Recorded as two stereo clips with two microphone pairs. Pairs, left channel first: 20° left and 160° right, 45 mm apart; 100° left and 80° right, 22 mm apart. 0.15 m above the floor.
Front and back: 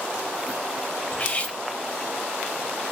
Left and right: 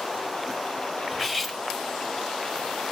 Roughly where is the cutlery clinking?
Ahead left.